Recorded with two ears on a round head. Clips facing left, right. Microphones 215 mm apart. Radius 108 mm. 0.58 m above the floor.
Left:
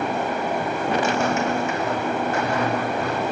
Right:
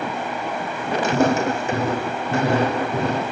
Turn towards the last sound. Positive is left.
turn(degrees=-25)  # may be behind; listen again after turning